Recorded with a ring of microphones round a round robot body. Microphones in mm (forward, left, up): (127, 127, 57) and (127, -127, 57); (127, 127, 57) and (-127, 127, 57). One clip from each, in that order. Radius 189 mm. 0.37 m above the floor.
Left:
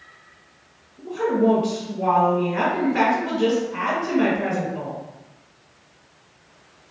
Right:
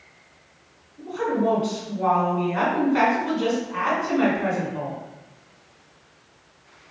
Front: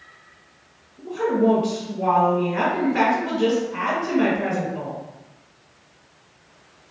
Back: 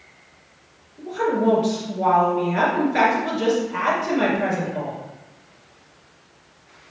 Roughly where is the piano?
I don't hear a piano.